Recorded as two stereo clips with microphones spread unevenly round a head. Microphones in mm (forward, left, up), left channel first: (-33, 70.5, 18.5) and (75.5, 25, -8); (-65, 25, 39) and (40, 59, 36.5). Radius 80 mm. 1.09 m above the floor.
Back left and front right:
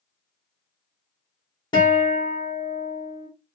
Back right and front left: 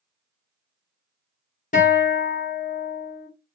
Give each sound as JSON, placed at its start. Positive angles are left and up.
{"t": 1.7, "sound": "a guitar", "azimuth_deg": -145, "distance_m": 1.1}